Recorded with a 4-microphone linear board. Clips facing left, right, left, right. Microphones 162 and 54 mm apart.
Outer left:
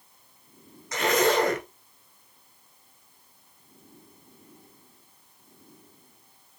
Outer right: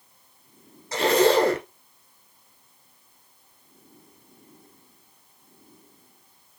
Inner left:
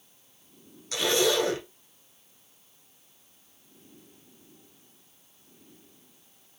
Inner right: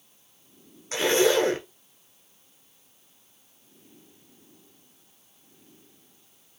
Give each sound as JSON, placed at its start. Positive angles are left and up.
{"t": 0.9, "sound": "a zipper", "side_deg": -35, "distance_m": 0.9}